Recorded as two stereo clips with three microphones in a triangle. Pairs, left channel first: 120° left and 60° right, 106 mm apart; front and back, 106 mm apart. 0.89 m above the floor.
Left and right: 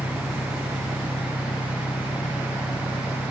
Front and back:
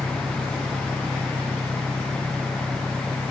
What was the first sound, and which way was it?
An engine running, 105° left.